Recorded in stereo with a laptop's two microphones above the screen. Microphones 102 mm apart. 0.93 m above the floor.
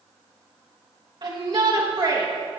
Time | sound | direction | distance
1.2 | a shout | 50° right (ahead or behind) | 1.2 m